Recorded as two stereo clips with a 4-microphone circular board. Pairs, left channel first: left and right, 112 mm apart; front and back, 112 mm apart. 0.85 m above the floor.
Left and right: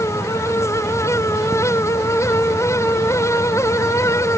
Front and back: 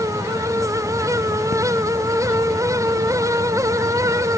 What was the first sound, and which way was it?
Only background noise.